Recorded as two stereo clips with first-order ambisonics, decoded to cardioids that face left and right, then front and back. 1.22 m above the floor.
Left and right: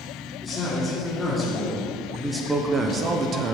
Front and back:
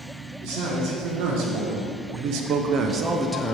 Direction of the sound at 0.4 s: 165° left.